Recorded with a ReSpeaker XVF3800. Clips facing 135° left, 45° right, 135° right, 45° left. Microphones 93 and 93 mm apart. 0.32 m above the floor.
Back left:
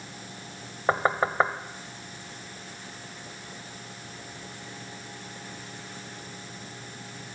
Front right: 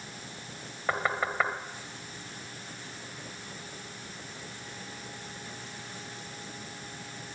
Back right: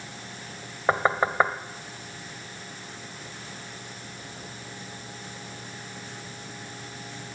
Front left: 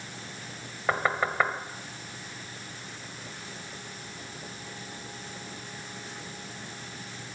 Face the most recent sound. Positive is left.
turn(degrees=175)